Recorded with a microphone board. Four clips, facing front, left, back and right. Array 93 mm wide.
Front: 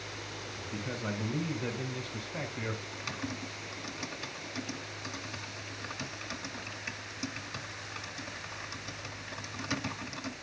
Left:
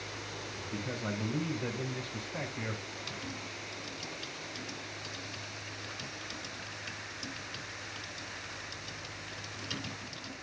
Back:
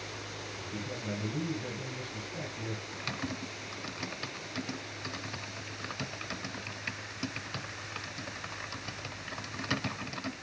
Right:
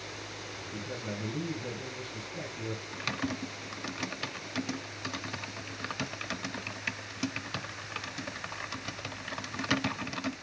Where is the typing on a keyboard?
105° right, 0.8 m.